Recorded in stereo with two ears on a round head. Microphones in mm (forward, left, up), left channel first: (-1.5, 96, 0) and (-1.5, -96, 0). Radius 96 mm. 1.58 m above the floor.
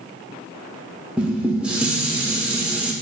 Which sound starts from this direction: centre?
Dishes clattering, at 1.2 s.